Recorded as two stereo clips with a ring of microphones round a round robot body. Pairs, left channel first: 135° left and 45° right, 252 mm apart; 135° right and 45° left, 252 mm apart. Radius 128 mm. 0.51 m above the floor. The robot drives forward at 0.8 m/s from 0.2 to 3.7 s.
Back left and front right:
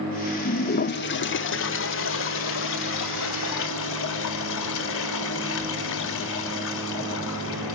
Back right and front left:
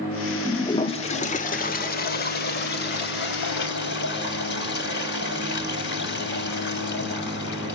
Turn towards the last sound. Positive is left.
turn(degrees=175)